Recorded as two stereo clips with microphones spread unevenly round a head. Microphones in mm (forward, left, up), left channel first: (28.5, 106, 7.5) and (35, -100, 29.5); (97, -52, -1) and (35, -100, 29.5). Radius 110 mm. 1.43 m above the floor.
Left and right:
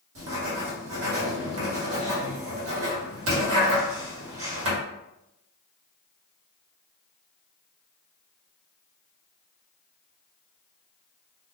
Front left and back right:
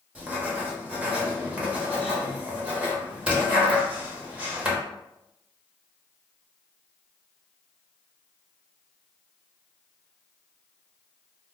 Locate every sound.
0.1 s writing: 65° right, 1.2 m